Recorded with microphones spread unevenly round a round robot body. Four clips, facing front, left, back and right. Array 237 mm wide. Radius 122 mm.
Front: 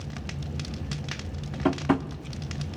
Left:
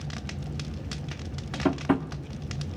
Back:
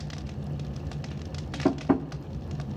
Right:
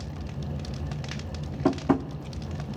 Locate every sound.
1.6 s tapping: 135° right, 0.6 m